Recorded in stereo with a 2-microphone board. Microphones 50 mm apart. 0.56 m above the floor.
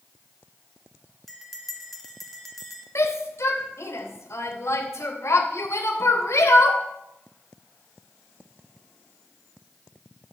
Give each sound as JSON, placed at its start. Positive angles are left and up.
{"t": 1.3, "sound": "a bell", "side_deg": 5, "distance_m": 1.7}
{"t": 3.0, "sound": "a shout", "side_deg": 70, "distance_m": 3.5}